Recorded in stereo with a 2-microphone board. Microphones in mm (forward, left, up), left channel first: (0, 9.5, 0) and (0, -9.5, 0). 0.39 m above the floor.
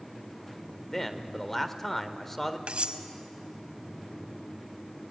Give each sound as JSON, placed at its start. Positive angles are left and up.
{"t": 0.9, "sound": "a man speaking", "side_deg": 20, "distance_m": 1.2}
{"t": 2.7, "sound": "cutlery clinking", "side_deg": -70, "distance_m": 1.2}